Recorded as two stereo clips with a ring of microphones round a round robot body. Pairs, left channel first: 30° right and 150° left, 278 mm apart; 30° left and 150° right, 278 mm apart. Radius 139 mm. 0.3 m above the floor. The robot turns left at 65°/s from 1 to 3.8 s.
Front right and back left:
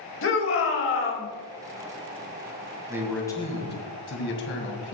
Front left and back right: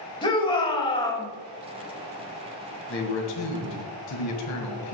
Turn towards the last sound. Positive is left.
turn(degrees=15)